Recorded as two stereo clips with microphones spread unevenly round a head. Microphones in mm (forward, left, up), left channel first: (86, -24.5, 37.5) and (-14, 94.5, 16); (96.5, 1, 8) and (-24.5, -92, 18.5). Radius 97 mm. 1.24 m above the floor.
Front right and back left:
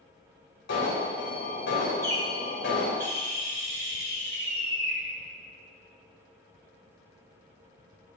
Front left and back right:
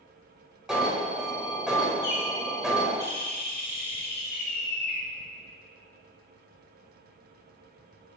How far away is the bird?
About 4 m.